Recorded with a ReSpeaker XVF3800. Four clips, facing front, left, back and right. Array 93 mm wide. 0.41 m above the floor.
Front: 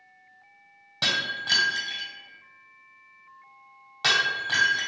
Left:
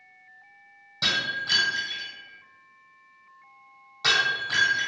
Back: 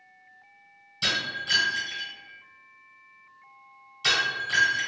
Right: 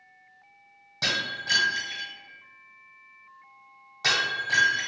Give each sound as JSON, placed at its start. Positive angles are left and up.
{"t": 1.0, "sound": "breaking glass", "azimuth_deg": -10, "distance_m": 1.6}